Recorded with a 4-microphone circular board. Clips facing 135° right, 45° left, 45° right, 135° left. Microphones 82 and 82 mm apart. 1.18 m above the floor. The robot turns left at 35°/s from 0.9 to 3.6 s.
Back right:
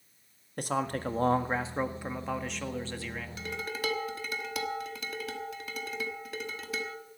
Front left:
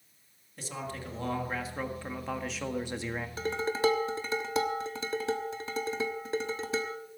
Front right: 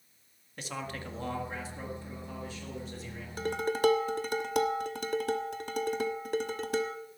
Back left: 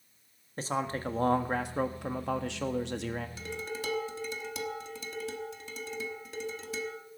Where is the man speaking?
170° right, 1.5 m; by 3.3 s 105° left, 1.5 m.